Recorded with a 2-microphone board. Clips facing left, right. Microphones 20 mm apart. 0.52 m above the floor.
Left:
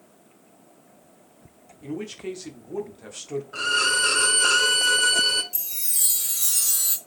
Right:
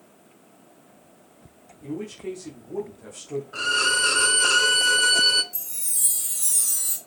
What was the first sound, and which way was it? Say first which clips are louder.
A man speaking: even; 40° left (ahead or behind).